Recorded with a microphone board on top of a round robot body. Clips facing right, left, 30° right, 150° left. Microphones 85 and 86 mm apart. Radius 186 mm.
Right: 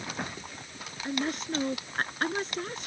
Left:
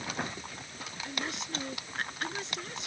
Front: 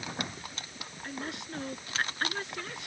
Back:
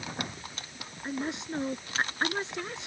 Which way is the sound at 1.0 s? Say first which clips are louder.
Right 8 dB, back 6 dB; 140° right.